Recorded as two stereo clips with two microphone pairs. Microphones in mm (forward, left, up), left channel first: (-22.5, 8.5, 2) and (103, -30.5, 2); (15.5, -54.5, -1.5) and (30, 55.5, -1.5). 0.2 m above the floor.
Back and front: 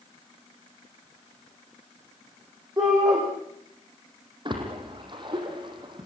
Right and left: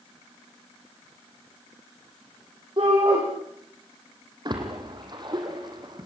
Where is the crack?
I don't hear a crack.